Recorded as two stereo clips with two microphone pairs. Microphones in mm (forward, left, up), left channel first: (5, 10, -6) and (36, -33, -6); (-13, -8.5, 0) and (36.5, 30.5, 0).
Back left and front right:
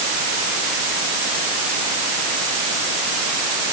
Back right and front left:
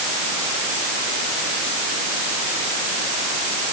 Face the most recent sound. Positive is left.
No sound to turn to.